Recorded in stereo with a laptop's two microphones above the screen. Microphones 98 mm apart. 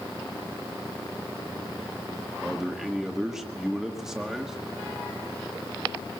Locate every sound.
2.4 s a man speaking: 5° right (ahead or behind), 1.5 m